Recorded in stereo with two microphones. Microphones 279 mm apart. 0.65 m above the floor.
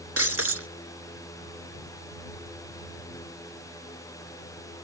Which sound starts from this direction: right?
Breaking glass, at 0.2 s.